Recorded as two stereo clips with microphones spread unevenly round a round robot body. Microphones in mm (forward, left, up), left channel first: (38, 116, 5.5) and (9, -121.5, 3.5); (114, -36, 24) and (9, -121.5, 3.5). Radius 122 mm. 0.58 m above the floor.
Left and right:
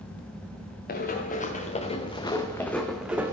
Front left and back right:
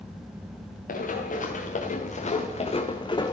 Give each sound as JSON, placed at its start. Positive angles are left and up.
{"t": 0.9, "sound": "running footsteps", "azimuth_deg": 30, "distance_m": 2.5}